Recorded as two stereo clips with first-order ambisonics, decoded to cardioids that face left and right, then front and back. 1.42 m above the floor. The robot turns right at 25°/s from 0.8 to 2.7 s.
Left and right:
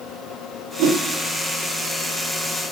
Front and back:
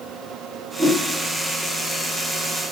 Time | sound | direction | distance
0.8 | a whoosh | 85° right | 0.6 m